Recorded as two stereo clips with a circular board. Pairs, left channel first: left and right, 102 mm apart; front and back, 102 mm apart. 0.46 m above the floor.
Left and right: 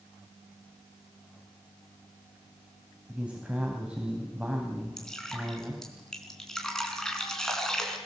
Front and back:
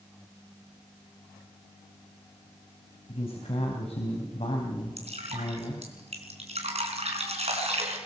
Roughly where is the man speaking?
Ahead.